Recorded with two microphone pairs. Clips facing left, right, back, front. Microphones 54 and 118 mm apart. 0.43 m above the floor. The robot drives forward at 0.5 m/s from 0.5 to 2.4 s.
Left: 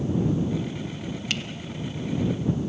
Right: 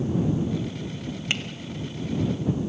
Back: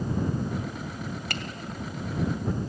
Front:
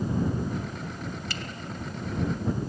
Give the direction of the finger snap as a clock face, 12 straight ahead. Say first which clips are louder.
Right 2 dB, back 2 dB; 5 o'clock.